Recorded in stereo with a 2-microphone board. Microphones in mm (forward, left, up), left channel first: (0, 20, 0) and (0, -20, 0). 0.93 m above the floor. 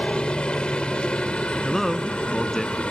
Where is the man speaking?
5° left (ahead or behind).